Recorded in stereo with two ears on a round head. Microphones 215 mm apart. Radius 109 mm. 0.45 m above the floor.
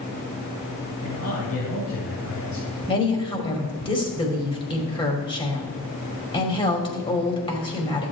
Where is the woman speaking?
20° left (ahead or behind), 2.5 m.